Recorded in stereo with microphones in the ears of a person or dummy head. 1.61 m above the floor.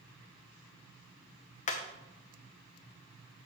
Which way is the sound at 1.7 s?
45° left (ahead or behind).